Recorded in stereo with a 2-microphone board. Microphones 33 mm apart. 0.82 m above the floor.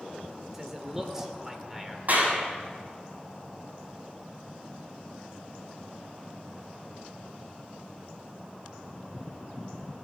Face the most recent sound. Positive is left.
turn(degrees=-55)  # may be behind; listen again after turning